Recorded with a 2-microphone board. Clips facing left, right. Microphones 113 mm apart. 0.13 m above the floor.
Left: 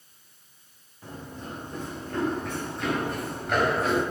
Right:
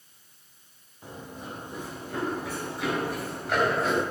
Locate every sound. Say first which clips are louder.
1.0 s running footsteps: left 1 dB; 15° right (ahead or behind), 6 m; by 4.0 s centre (ahead or behind), 5 m